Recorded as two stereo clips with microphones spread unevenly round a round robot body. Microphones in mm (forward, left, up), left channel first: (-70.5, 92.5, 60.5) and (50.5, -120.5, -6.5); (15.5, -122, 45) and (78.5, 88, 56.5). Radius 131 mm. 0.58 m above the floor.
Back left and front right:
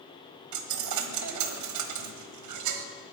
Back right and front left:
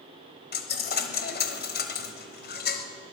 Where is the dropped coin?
60° right, 1.3 m.